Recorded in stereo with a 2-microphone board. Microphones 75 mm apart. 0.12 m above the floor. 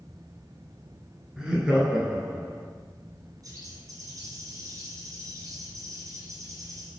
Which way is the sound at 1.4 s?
10° right (ahead or behind).